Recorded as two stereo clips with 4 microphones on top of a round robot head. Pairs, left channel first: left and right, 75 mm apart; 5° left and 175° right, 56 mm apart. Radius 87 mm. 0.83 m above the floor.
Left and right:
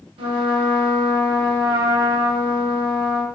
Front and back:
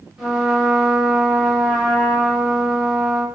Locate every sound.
0.2 s a trumpet: 95° right, 0.7 m